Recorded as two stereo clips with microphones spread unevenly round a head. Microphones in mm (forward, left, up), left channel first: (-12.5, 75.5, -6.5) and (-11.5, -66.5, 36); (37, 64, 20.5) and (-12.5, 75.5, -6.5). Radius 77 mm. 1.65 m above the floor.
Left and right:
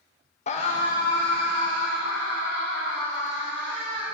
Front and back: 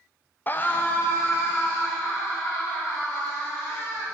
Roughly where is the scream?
Ahead left.